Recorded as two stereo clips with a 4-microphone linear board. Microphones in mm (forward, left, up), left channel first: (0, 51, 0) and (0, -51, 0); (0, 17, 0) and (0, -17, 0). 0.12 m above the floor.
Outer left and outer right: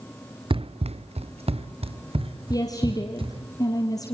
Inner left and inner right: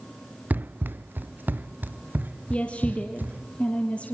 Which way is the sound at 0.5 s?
55° right (ahead or behind).